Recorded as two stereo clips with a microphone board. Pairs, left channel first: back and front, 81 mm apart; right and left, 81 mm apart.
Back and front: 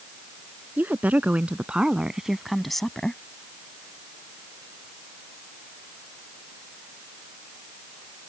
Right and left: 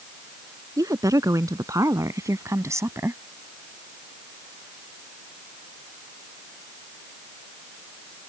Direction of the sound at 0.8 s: 65° left.